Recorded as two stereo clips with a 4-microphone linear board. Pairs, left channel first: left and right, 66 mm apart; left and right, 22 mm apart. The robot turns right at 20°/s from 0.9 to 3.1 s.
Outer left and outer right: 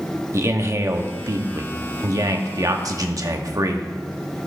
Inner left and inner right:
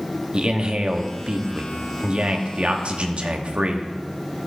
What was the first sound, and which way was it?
A man speaking, 125° right.